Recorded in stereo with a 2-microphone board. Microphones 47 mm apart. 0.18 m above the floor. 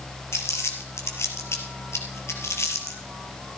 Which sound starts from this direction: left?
Crumpling, at 0.3 s.